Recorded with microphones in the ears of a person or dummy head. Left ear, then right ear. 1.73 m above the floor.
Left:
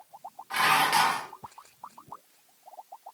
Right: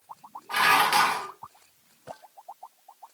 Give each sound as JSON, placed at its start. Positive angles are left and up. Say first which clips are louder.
{"t": 0.5, "sound": "dishes clattering", "louder": "right 2 dB", "side_deg": -15, "distance_m": 1.8}